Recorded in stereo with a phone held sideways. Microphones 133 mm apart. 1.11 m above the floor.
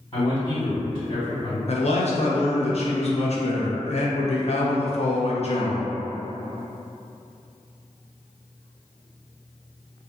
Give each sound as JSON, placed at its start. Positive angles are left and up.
{"t": 0.1, "sound": "a man speaking", "side_deg": 40, "distance_m": 1.8}
{"t": 1.7, "sound": "a man speaking", "side_deg": 55, "distance_m": 0.5}